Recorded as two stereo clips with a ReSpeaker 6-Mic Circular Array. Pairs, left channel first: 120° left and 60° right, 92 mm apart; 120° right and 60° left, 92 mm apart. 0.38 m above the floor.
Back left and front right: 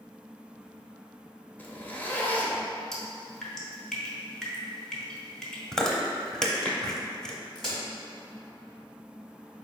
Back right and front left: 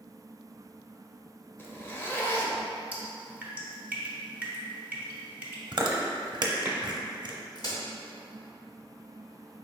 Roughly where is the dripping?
Ahead left.